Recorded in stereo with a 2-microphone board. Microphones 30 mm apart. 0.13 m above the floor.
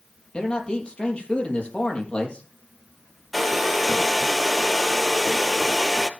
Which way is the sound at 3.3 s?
Centre (ahead or behind).